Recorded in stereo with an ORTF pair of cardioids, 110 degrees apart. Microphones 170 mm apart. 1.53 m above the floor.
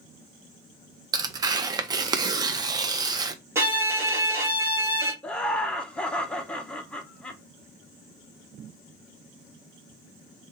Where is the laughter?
5° left, 0.5 m.